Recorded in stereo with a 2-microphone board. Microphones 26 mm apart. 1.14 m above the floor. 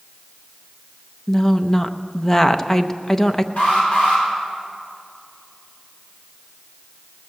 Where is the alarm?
75° left (ahead or behind), 4.5 m.